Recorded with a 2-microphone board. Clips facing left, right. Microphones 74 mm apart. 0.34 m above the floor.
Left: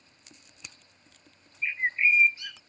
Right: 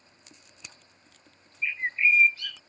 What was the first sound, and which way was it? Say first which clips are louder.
A bird: even; 20° left (ahead or behind).